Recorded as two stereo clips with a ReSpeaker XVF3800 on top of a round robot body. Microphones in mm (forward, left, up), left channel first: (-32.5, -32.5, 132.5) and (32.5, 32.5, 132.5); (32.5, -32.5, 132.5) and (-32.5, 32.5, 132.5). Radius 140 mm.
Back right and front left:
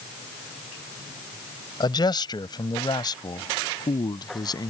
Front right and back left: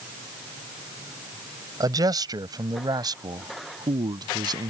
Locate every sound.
1.8 s a man speaking: 175° right; by 4.7 s straight behind